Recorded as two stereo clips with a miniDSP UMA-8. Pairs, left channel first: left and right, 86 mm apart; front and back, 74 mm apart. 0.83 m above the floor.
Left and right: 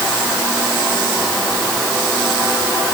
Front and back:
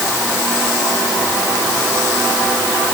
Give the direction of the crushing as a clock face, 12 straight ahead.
I don't hear crushing.